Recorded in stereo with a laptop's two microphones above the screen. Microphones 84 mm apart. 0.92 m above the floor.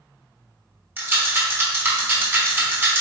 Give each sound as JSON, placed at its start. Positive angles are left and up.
{"t": 1.0, "sound": "a rattle", "side_deg": -30, "distance_m": 0.9}